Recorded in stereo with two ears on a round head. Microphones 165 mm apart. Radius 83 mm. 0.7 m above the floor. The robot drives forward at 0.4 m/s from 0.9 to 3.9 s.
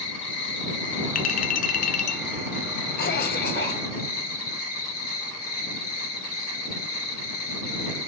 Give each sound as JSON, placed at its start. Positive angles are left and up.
{"t": 0.0, "sound": "an insect", "side_deg": 65, "distance_m": 3.0}
{"t": 1.1, "sound": "a clink", "side_deg": 45, "distance_m": 0.6}
{"t": 3.0, "sound": "a cough", "side_deg": 50, "distance_m": 1.7}